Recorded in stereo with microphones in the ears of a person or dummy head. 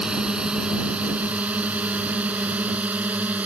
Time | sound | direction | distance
0.0 | a drone | centre (ahead or behind) | ?